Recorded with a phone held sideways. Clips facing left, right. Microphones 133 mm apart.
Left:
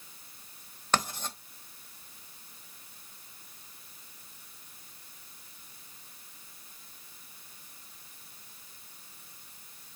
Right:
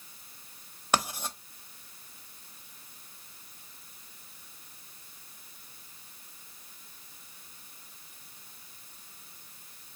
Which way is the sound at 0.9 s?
10° right (ahead or behind).